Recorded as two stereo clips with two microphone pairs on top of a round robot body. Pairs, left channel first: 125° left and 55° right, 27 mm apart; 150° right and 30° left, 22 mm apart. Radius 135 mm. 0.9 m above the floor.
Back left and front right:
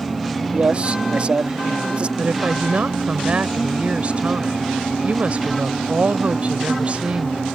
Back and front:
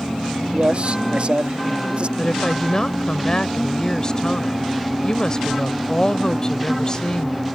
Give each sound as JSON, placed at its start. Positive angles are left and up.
{"t": 0.5, "sound": "a man speaking", "azimuth_deg": -5}
{"t": 2.2, "sound": "a woman speaking", "azimuth_deg": -90}